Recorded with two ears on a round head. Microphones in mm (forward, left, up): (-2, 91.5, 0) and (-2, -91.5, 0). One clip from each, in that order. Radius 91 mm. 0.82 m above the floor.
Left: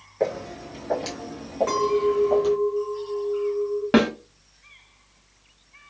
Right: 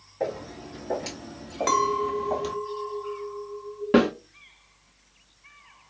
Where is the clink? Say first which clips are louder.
Even; 60° right (ahead or behind), 0.9 m.